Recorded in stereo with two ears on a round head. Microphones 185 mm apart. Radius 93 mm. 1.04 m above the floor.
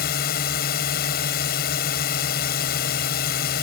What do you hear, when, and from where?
0.0 s a drone: 45° left (ahead or behind)